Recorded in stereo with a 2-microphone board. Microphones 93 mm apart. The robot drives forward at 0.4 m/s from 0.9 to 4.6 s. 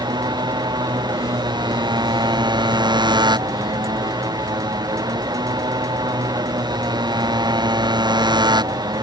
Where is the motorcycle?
50° right (ahead or behind).